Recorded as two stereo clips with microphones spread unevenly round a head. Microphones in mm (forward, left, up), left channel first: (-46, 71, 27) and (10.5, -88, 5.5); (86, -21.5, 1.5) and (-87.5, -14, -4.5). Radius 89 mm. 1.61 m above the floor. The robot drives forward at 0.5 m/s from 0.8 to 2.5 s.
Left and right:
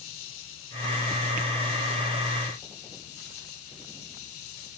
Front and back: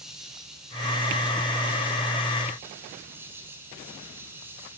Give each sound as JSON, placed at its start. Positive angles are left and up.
{"t": 0.0, "sound": "an insect", "azimuth_deg": 90, "distance_m": 5.5}